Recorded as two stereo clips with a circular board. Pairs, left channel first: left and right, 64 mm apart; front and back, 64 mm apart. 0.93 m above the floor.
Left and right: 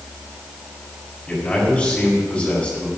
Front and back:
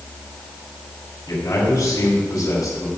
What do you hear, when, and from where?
1.3 s a man speaking: 20° left, 4.5 m